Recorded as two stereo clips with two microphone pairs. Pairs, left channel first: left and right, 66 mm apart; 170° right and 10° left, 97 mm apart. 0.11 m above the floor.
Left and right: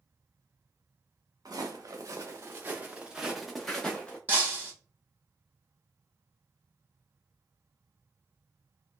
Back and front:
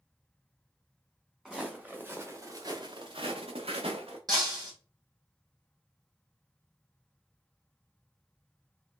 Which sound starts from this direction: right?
Footsteps, at 1.4 s.